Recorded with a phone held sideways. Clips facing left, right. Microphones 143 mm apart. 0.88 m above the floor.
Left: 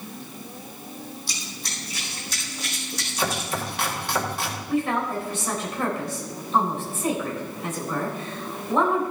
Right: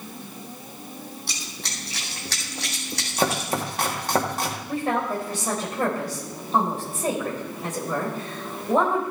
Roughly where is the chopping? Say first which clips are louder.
Right 4 dB; right.